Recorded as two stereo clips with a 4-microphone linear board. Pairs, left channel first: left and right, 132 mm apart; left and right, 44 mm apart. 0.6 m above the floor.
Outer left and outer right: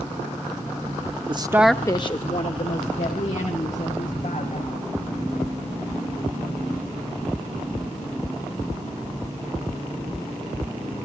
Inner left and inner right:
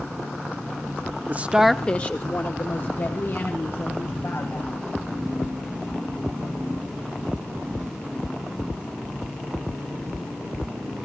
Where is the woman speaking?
40° right (ahead or behind), 0.7 m; by 4.8 s 70° left (ahead or behind), 4 m.